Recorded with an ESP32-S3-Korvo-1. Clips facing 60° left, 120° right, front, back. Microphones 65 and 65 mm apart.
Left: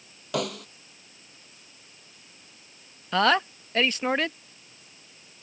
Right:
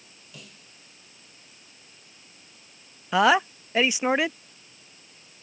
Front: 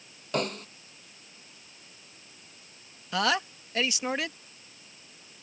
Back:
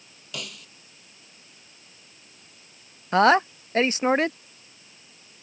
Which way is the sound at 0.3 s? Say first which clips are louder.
Left 21 dB, front 9 dB; 45° left.